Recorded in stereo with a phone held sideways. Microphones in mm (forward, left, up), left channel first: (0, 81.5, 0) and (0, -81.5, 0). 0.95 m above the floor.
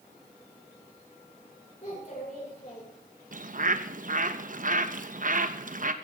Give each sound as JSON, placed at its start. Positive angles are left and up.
{"t": 1.8, "sound": "a child speaking", "side_deg": 45, "distance_m": 8.5}
{"t": 3.3, "sound": "a bird", "side_deg": -55, "distance_m": 0.9}